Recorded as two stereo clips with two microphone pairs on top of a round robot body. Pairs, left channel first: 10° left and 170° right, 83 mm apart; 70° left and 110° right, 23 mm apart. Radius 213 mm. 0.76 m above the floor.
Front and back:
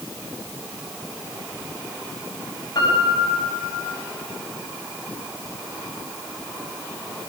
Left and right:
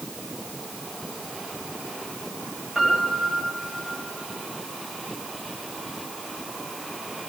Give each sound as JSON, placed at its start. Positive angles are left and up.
{"t": 2.8, "sound": "a piano", "azimuth_deg": -25, "distance_m": 5.0}